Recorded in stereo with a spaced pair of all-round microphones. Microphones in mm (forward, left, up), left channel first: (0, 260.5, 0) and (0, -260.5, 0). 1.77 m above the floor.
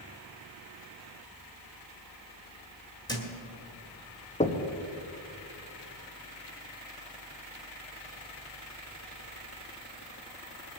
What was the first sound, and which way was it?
A thud, 5° left (ahead or behind).